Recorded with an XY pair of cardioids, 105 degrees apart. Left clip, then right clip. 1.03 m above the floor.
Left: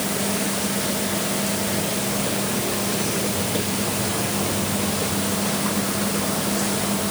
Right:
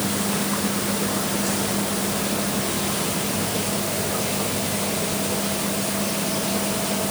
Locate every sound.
Only background noise.